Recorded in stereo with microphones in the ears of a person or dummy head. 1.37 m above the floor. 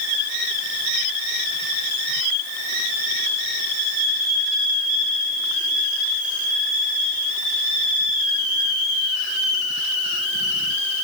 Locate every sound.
Only background noise.